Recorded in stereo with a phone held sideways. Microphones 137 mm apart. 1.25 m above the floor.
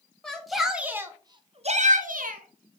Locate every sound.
0.2 s a shout: 5° left (ahead or behind), 1.2 m; by 2.8 s 75° right (ahead or behind), 1.1 m